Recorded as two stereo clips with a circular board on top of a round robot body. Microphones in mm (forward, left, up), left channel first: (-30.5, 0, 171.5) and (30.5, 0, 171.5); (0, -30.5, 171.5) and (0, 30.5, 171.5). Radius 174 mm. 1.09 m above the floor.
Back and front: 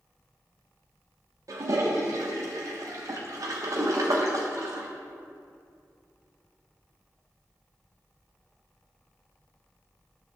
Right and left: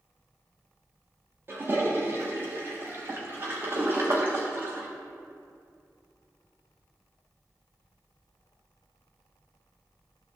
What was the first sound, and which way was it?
A toilet flushing, 35° left.